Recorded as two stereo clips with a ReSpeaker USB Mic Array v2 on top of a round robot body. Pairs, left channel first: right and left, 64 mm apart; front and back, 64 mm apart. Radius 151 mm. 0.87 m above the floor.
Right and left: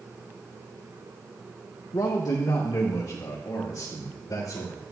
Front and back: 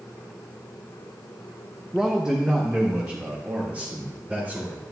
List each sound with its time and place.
1.9 s a man speaking: 100° right, 0.9 m; by 4.8 s 120° right, 3 m